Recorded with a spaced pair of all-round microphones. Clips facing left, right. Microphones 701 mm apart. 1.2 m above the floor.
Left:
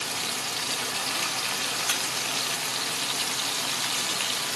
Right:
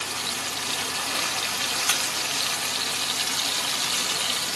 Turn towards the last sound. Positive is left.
No sound to turn to.